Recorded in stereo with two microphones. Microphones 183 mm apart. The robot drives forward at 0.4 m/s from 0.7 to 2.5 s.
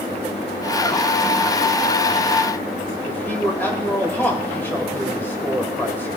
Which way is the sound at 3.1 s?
10° left (ahead or behind).